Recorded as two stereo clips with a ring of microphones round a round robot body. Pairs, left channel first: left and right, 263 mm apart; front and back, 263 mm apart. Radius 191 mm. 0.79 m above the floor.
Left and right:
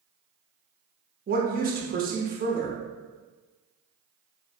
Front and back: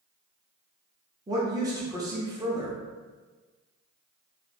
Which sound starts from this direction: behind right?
A woman speaking, at 1.3 s.